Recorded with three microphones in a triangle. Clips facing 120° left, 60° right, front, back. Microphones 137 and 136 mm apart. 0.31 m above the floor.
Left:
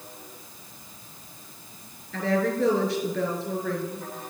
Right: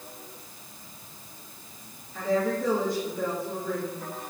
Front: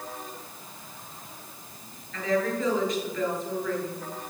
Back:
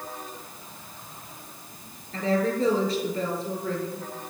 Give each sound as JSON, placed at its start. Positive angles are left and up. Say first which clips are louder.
{"t": 2.1, "sound": "a woman speaking", "louder": "left 1 dB, back 2 dB", "azimuth_deg": 125, "distance_m": 4.5}